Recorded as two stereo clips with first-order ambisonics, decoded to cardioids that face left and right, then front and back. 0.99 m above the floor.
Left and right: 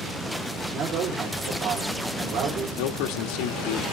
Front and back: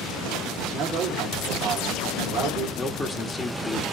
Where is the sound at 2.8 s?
75° left, 1.6 m.